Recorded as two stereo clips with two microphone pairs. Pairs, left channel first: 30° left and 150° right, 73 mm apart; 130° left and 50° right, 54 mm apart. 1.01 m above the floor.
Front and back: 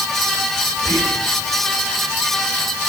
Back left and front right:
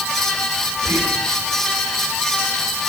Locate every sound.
0.8 s whispering: 30° right, 5.5 m